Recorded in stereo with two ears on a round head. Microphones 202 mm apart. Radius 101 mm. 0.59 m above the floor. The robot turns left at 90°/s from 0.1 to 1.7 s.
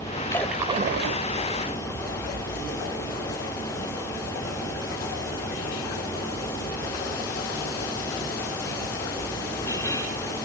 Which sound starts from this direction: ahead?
A splash, at 0.3 s.